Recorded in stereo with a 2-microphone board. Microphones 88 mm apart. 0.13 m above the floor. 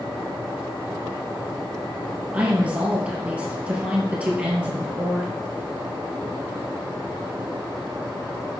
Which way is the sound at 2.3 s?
15° right (ahead or behind).